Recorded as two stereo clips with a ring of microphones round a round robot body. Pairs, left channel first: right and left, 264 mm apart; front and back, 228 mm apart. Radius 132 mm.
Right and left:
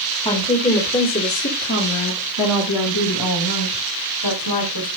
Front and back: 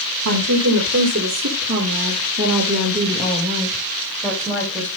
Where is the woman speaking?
160° right, 1.9 m; by 4.9 s 80° right, 2.5 m.